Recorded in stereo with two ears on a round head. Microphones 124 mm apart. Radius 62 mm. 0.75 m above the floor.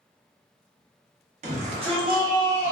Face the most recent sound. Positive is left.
turn(degrees=-15)  # may be behind; listen again after turning